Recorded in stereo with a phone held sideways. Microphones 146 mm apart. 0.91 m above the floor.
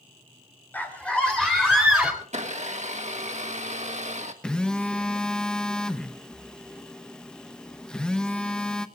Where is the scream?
10° left (ahead or behind), 3.5 m; by 2.1 s 5° right (ahead or behind), 4.5 m.